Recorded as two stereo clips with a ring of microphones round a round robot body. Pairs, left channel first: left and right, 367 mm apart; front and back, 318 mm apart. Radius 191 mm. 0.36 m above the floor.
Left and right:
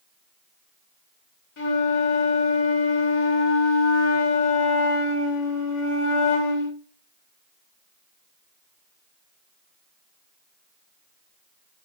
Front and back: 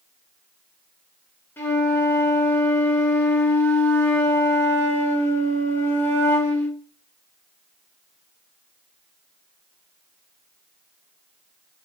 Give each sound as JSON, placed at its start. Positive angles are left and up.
{"t": 1.6, "sound": "a flute", "azimuth_deg": 80, "distance_m": 1.6}